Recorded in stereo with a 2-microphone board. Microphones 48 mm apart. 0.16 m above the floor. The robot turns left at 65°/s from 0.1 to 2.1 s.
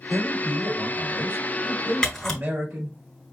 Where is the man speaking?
5° right, 4 m; by 3.0 s 135° right, 4 m.